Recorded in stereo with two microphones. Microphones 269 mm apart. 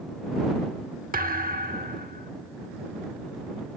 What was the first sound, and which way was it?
A thud, 35° right (ahead or behind).